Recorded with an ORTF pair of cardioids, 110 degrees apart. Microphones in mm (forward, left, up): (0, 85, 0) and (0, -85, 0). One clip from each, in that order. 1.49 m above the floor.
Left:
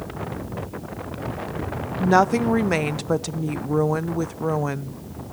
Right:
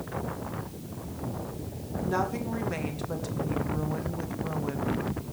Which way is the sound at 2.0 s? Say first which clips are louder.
Left 12 dB; 60° left.